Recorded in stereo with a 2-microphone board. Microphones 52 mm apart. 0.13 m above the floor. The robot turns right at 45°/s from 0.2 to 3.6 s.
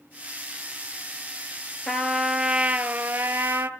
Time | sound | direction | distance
1.9 | a trumpet | 170° left | 0.9 m